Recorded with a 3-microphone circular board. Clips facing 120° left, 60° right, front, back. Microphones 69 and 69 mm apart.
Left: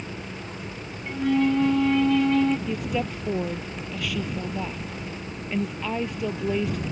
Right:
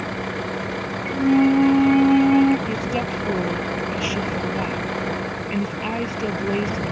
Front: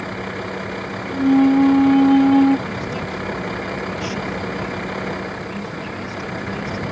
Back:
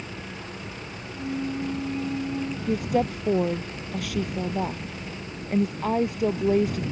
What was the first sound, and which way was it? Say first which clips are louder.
A vehicle: right 10 dB, front 11 dB; 30° right.